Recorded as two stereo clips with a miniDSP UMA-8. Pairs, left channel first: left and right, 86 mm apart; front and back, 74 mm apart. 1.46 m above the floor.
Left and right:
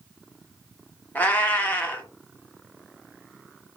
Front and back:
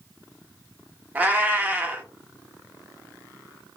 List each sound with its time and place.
1.1 s a cat meowing: 140° left, 0.8 m